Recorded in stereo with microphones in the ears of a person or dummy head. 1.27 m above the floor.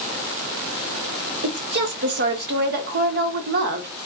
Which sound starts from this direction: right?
A woman speaking, at 1.4 s.